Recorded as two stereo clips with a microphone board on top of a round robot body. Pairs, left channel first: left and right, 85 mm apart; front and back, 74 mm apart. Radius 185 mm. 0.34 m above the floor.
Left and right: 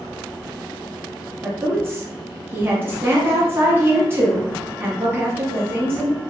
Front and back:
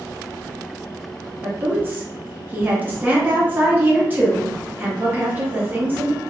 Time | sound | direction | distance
1.4 | a woman speaking | 130° right | 1.0 m